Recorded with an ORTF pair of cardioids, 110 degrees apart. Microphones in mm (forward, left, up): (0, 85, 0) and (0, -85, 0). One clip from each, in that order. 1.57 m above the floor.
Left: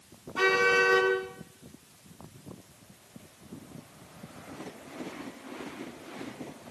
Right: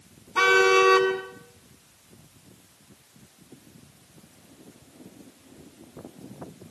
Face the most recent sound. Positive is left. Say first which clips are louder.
# right 5 dB
turn(degrees=-60)